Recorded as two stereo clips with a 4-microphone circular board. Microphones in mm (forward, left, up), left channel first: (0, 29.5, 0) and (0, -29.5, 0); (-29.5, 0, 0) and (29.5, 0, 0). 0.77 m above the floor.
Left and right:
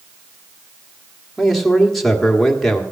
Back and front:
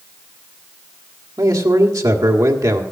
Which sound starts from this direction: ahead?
A man speaking, at 1.4 s.